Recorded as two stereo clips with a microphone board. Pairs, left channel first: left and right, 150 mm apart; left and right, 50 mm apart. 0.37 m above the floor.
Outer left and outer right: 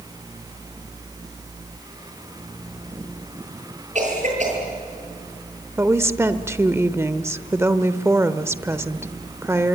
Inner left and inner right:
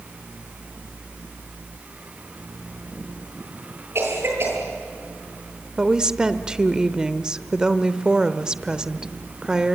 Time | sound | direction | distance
4.0 | a cough | 50° right (ahead or behind) | 9 m
5.8 | a woman speaking | 15° right (ahead or behind) | 0.9 m